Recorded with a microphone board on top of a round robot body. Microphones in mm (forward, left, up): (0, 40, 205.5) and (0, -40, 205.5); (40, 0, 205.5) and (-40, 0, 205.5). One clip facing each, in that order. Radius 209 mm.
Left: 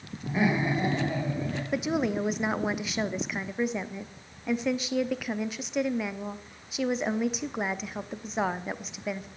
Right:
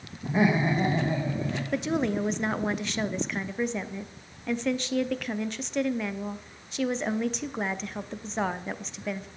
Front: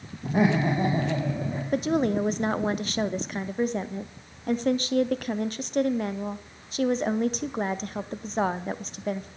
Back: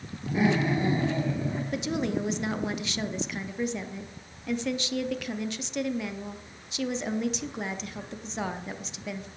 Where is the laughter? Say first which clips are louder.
Right 2 dB, front 2 dB; 20° right, 3.5 m; by 1.6 s 5° right, 4 m.